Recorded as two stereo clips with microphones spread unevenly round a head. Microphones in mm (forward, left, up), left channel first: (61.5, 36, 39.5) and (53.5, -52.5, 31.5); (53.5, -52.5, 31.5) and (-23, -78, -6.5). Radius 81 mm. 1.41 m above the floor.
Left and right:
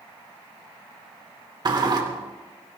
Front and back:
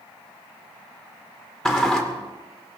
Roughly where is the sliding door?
Ahead right.